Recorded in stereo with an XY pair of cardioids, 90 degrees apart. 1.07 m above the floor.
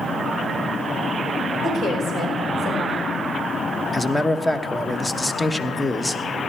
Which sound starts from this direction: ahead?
A man speaking, at 3.9 s.